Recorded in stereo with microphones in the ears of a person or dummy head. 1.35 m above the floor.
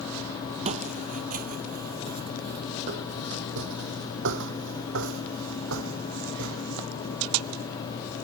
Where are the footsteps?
30° right (ahead or behind); by 7.6 s 70° right (ahead or behind).